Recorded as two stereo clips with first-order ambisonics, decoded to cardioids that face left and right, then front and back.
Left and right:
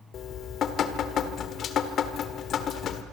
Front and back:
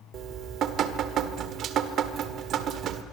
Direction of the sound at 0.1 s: 140° left.